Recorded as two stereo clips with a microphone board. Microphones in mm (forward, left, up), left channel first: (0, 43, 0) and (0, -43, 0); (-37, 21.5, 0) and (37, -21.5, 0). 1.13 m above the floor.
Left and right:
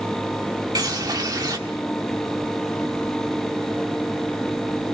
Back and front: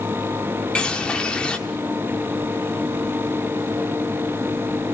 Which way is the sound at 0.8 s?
130° right.